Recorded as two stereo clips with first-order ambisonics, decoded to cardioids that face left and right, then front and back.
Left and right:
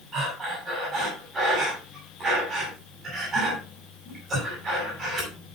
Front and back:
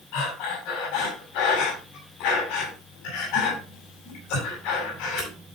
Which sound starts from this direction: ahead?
Breathing, at 0.1 s.